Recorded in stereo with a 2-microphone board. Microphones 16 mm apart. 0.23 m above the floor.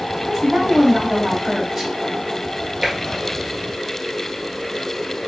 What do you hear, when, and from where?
0.2 s a woman speaking: 20° right (ahead or behind), 1.6 m
2.8 s tapping: 35° right (ahead or behind), 1.2 m